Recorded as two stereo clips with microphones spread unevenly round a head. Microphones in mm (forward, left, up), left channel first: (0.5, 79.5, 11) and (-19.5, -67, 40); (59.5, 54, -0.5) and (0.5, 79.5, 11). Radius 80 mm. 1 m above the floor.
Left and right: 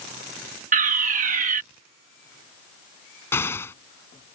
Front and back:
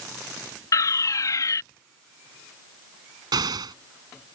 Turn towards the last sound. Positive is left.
turn(degrees=160)